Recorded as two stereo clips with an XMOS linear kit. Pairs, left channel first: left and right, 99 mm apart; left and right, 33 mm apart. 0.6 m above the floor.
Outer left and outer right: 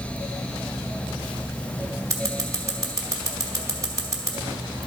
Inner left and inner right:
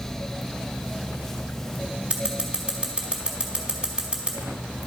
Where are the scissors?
30° right (ahead or behind), 1.0 m.